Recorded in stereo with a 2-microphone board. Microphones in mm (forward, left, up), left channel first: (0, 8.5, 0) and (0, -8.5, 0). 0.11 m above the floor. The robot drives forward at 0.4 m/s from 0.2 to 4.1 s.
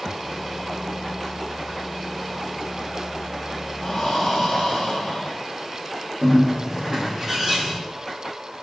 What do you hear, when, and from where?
3.8 s breathing: 35° left (ahead or behind), 2.5 m
6.2 s a bird: centre (ahead or behind), 4.5 m